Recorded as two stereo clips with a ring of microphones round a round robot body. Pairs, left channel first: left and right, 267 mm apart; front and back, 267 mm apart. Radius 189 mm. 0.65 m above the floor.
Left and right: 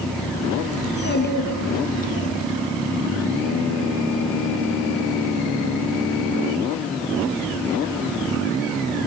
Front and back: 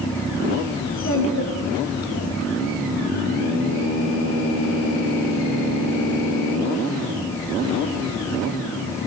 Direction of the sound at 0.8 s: 40° left.